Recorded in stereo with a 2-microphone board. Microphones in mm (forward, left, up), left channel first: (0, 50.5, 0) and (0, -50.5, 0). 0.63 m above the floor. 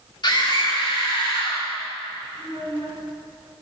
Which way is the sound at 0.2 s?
45° left (ahead or behind).